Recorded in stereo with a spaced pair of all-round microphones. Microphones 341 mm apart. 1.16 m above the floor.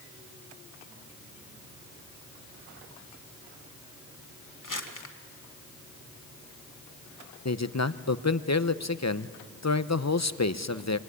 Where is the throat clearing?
No throat clearing in this recording.